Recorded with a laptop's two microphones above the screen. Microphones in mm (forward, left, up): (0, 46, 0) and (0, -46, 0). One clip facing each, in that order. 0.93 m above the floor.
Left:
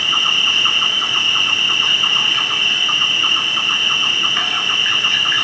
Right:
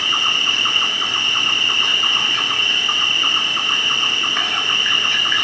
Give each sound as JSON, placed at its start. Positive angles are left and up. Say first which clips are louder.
{"t": 0.0, "sound": "an insect", "louder": "left 1 dB", "side_deg": -5, "distance_m": 2.0}